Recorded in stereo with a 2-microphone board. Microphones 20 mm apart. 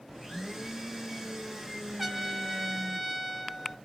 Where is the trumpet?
5° right (ahead or behind), 0.7 m.